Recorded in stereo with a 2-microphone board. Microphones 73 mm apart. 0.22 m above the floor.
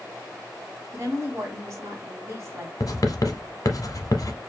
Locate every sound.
0.9 s a woman speaking: 40° right (ahead or behind), 1.6 m
2.8 s writing: 50° left (ahead or behind), 0.8 m